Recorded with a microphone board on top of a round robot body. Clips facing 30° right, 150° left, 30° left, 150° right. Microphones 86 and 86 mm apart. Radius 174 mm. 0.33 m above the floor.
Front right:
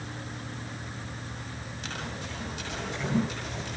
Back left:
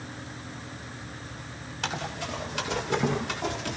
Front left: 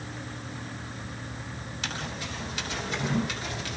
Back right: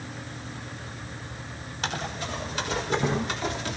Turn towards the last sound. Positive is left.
turn(degrees=150)